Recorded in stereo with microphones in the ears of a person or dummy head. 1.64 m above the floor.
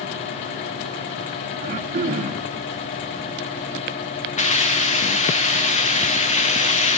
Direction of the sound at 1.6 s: 40° right (ahead or behind).